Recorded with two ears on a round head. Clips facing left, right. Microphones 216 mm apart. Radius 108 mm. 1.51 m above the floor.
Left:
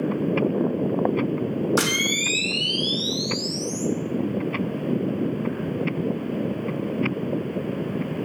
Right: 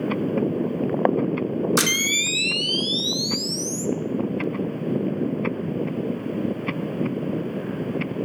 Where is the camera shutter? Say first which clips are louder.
Left 1 dB; 30° right (ahead or behind), 0.5 m.